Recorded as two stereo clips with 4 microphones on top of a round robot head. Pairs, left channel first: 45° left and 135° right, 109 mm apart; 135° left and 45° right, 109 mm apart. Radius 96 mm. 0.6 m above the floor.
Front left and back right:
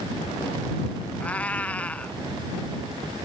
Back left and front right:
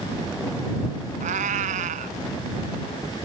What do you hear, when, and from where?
1.2 s a cat meowing: 35° right